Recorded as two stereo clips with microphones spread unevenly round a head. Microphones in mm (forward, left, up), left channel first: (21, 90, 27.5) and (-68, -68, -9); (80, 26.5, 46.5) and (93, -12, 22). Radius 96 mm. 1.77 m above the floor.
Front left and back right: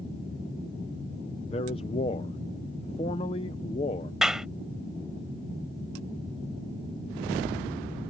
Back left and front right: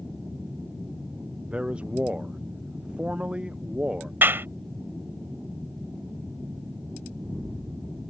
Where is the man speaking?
5° left.